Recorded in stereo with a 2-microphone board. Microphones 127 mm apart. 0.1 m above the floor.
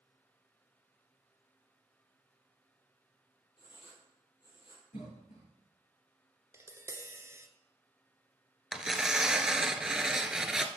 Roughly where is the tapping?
Right.